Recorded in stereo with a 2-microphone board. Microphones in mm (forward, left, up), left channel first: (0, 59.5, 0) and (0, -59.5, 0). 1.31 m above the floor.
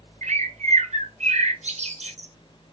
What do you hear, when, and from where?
0.2 s a bird: 65° right (ahead or behind), 0.5 m